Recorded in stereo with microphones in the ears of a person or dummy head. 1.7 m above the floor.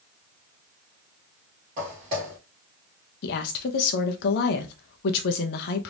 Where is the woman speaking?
60° left (ahead or behind), 0.6 m.